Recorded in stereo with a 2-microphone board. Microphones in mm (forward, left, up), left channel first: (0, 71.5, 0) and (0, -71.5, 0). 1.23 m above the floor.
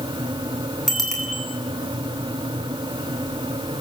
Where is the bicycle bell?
Centre (ahead or behind), 9.5 m.